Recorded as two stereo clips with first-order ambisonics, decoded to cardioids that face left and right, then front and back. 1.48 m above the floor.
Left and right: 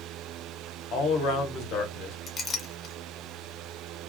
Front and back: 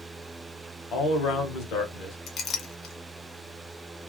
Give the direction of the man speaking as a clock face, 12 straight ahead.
10 o'clock.